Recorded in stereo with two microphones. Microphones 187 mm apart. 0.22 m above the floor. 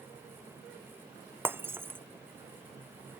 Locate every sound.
1.4 s breaking glass: 10° right (ahead or behind)